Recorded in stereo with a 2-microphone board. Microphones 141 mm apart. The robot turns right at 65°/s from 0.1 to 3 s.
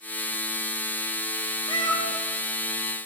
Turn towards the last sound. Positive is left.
turn(degrees=-130)